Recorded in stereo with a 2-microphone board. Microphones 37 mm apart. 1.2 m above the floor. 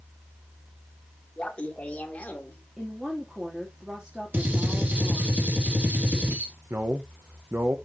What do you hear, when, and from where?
1.4 s laughter: 30° left (ahead or behind), 2.5 m; by 2.6 s 45° left (ahead or behind), 3 m
2.8 s a woman speaking: 10° right (ahead or behind), 3 m
4.3 s a gunshot: 50° right (ahead or behind), 3 m
6.7 s a man speaking: 65° right (ahead or behind), 1.1 m